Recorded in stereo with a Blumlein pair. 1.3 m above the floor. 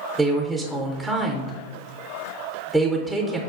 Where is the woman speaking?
5° right, 0.6 m.